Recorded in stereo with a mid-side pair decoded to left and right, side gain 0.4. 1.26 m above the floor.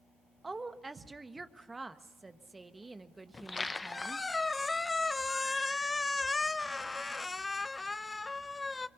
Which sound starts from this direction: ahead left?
A squeak, at 3.3 s.